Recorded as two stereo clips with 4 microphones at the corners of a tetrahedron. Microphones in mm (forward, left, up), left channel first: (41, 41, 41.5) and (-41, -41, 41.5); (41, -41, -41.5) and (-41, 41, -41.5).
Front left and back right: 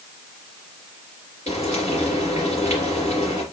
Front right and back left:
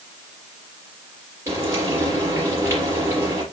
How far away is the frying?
About 4 m.